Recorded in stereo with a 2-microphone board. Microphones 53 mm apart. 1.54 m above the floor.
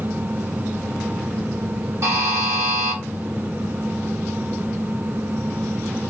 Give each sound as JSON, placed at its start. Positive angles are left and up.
{"t": 2.0, "sound": "a buzzer", "side_deg": -55, "distance_m": 1.5}